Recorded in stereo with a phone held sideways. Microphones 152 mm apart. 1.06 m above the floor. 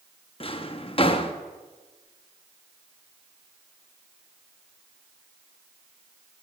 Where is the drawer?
40° left (ahead or behind), 0.7 m.